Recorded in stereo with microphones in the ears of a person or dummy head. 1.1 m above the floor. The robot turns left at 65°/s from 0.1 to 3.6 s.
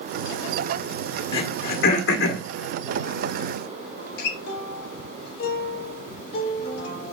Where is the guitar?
65° left (ahead or behind), 2 m.